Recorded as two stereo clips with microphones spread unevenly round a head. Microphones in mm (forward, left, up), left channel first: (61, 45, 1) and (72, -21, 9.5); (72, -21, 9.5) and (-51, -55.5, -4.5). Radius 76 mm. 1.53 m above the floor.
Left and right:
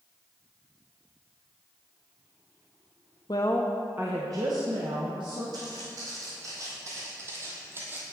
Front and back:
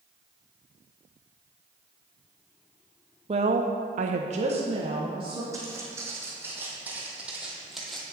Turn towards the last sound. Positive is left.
turn(degrees=-60)